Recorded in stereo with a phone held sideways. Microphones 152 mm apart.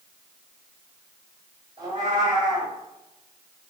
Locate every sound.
1.8 s a cat meowing: 35° right (ahead or behind), 1.8 m